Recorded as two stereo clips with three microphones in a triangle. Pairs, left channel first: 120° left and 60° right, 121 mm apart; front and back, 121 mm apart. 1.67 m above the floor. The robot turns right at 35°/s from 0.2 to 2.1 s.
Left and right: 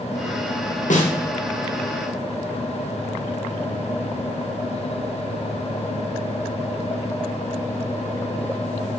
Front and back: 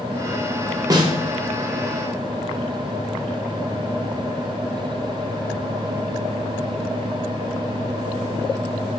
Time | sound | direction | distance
0.9 | a snare drum | 120° left | 1.2 m